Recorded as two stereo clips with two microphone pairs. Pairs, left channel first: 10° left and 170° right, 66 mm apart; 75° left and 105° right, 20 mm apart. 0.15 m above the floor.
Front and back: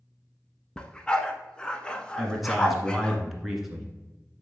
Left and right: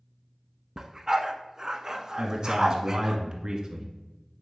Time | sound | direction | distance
0.8 | a dog barking | 60° right | 0.7 m
2.2 | a man speaking | 85° right | 1.4 m